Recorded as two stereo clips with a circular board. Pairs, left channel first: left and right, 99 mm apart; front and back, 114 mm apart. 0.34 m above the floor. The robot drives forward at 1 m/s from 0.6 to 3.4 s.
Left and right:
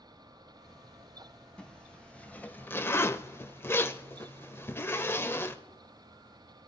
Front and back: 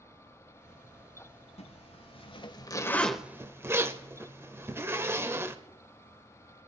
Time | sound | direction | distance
1.6 | a zipper | 10° left | 1.7 m